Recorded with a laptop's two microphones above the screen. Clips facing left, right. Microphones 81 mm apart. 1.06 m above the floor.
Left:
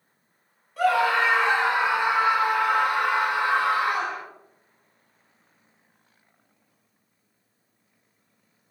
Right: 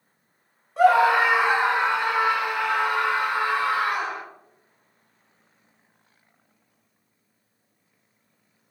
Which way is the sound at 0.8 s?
30° right (ahead or behind).